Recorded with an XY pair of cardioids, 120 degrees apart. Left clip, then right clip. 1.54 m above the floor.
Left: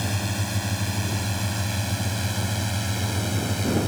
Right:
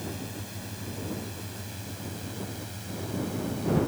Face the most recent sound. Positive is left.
turn(degrees=65)